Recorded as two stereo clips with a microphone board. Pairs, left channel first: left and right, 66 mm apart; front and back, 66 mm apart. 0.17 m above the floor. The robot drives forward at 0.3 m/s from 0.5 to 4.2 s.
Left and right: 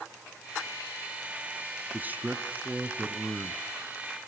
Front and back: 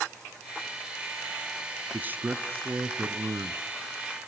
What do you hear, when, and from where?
1.9 s a man speaking: 135° right, 1.3 m; by 3.6 s 150° right, 1.6 m